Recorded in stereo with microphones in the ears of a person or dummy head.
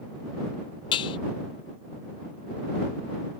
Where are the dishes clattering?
25° left (ahead or behind).